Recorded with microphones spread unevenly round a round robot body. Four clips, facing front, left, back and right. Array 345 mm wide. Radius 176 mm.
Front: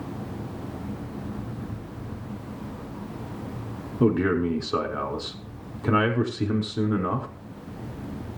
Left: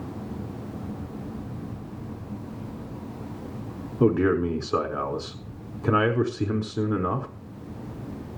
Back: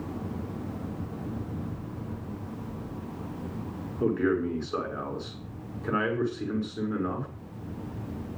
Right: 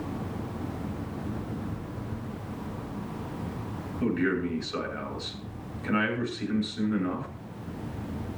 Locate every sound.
4.0 s a man speaking: 45° left, 6 m